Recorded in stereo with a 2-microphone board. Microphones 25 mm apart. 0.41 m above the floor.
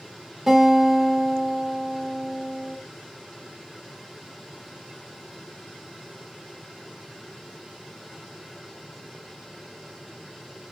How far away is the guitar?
About 1.5 m.